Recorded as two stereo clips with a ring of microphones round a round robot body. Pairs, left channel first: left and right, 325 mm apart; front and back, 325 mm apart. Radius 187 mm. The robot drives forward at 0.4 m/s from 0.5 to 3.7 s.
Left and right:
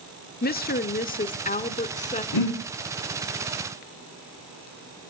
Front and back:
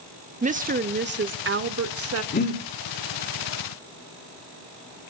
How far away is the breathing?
About 3 m.